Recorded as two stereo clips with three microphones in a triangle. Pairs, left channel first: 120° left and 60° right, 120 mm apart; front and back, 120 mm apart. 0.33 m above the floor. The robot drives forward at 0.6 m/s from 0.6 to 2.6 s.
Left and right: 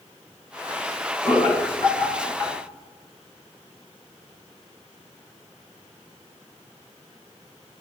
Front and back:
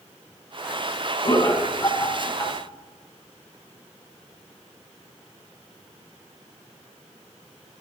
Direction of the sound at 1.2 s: 45° left.